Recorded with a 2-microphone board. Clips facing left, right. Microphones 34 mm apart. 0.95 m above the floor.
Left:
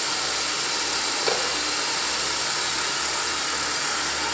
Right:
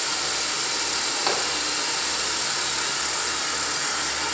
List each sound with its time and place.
0.0 s an insect: 5° left (ahead or behind), 1.0 m
1.3 s a clap: 25° right (ahead or behind), 7.5 m